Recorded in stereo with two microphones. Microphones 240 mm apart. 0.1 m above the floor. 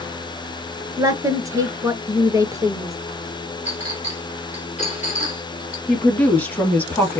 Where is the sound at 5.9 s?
5° left (ahead or behind), 2.5 m.